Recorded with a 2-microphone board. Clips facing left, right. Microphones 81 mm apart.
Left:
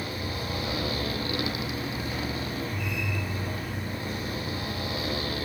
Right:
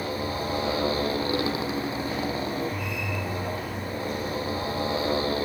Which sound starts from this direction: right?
A motorcycle, at 0.0 s.